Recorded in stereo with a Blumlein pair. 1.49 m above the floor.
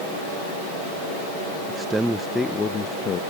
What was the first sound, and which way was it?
A man speaking, 15° right.